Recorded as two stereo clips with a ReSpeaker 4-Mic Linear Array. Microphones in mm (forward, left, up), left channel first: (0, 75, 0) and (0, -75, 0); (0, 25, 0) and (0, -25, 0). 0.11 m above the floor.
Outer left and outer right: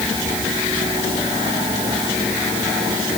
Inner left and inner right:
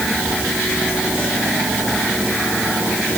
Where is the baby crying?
I don't hear a baby crying.